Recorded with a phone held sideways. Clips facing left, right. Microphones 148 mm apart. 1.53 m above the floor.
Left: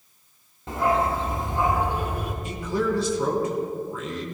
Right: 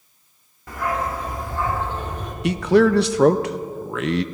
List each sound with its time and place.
0.7 s a dog barking: 25° left (ahead or behind), 1.4 m; by 2.3 s 10° left (ahead or behind), 2 m
2.4 s a man speaking: 75° right (ahead or behind), 0.6 m